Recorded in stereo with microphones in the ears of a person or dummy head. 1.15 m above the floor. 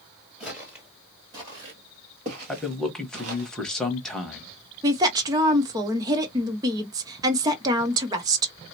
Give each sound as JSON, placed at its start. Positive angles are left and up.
{"t": 0.4, "sound": "footsteps", "side_deg": -5, "distance_m": 1.4}
{"t": 2.5, "sound": "a man speaking", "side_deg": 5, "distance_m": 1.0}
{"t": 4.8, "sound": "a woman speaking", "side_deg": -20, "distance_m": 0.7}